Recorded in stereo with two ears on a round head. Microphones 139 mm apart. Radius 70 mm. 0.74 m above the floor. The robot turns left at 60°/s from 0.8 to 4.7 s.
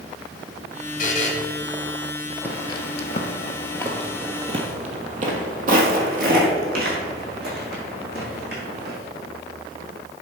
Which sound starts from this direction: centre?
Footsteps, at 2.4 s.